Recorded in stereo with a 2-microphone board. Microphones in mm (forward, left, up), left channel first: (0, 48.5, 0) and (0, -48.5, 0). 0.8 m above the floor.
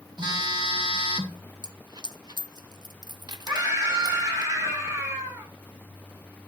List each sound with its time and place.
0.2 s a phone buzzing: 50° right (ahead or behind), 1.5 m
1.6 s a dropped coin: 45° right (ahead or behind), 0.6 m
3.5 s a scream: 30° right (ahead or behind), 7 m